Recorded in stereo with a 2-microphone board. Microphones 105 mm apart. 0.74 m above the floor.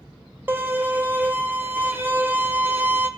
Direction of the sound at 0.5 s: 20° right (ahead or behind).